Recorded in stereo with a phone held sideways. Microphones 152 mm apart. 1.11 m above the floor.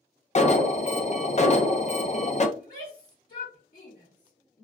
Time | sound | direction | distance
0.3 | an alarm | 50° left (ahead or behind) | 0.5 m
2.6 | a shout | 70° left (ahead or behind) | 1.6 m